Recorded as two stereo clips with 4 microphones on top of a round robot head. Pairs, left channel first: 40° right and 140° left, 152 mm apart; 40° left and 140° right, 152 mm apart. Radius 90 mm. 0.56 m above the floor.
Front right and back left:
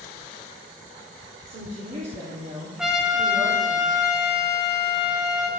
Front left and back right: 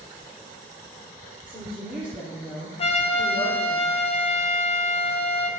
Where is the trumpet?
55° left, 0.8 m.